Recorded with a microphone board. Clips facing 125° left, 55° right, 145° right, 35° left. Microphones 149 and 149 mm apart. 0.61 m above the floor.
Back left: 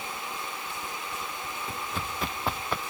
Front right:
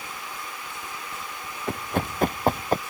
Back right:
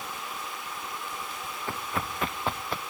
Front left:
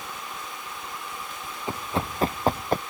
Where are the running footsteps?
35° right; by 2.8 s 5° right.